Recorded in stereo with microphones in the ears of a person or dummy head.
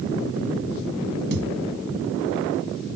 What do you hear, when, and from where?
1.3 s a thud: 60° right (ahead or behind)